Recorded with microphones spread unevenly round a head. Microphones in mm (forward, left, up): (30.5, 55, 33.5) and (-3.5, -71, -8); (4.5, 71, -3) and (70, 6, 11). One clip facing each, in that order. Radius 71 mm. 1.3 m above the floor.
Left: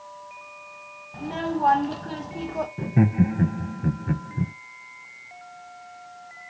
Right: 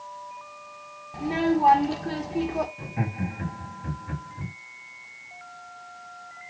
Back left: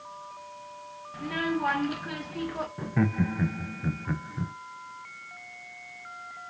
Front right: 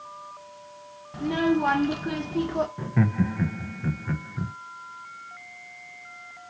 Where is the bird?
No bird in this recording.